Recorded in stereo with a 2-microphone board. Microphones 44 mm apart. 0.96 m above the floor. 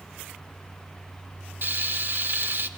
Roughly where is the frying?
Right.